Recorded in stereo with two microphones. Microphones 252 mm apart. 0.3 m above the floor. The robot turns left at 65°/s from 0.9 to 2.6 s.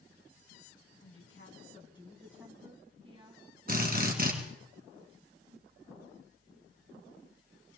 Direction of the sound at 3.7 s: 35° right (ahead or behind).